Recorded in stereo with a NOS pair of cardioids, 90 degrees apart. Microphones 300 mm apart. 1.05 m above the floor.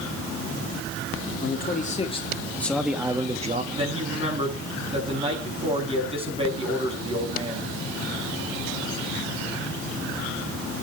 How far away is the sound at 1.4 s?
About 2 m.